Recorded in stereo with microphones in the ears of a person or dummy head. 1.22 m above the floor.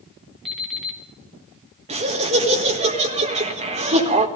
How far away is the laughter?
About 1.7 m.